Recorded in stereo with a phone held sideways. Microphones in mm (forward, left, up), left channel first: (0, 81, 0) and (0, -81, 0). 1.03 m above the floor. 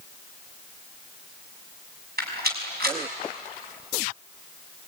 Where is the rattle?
75° right (ahead or behind), 6 m.